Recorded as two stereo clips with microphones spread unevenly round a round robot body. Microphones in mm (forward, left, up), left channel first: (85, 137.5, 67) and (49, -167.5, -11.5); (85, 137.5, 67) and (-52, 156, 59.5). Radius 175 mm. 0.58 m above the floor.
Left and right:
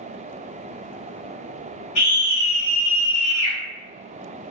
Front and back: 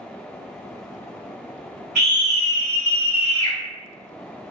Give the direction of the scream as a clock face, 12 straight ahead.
9 o'clock.